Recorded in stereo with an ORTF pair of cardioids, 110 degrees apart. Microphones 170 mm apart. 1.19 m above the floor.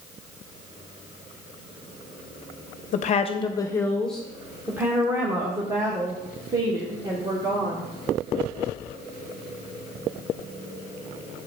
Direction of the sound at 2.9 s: 50° left.